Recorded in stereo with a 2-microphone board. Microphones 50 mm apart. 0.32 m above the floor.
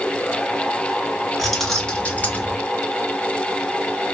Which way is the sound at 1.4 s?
Centre (ahead or behind).